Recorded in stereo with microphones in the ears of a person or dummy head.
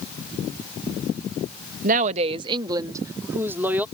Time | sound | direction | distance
1.8 | a woman speaking | 50° right (ahead or behind) | ?